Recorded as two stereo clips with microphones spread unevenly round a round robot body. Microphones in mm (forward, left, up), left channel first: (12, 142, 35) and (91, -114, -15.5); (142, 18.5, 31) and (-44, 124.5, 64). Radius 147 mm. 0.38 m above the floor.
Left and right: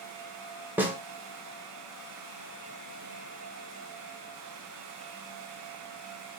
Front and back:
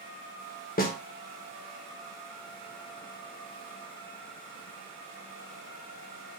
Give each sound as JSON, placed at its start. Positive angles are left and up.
{"t": 0.8, "sound": "a snare drum", "azimuth_deg": 0, "distance_m": 0.6}